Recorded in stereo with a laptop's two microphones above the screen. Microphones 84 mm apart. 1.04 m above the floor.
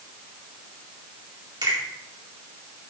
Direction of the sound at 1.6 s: 65° right (ahead or behind).